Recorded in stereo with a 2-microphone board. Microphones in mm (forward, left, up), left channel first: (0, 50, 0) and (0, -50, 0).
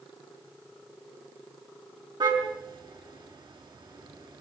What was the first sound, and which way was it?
A car horn, 50° right (ahead or behind).